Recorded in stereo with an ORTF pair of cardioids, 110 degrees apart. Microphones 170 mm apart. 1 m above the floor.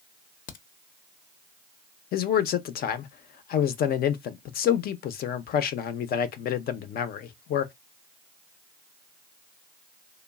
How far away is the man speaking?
About 0.6 m.